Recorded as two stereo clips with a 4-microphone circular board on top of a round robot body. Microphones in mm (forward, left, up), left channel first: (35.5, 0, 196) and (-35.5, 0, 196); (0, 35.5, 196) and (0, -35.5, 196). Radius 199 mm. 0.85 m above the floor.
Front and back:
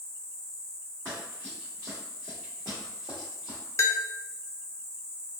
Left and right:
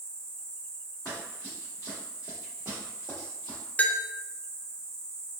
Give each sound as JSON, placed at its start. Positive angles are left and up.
{"t": 0.0, "sound": "an insect", "azimuth_deg": -135, "distance_m": 1.8}
{"t": 1.1, "sound": "running footsteps", "azimuth_deg": 110, "distance_m": 1.2}
{"t": 3.8, "sound": "a bell", "azimuth_deg": 30, "distance_m": 0.6}